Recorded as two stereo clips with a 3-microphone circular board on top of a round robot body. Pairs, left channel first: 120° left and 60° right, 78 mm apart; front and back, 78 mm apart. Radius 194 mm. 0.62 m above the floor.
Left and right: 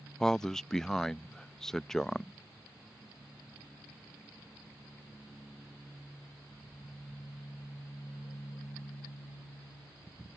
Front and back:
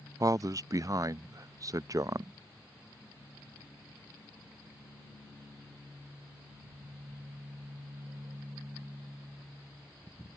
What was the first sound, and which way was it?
A man speaking, 155° right.